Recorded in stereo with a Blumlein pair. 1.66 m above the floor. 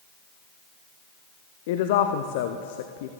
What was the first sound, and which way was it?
A woman speaking, 50° left.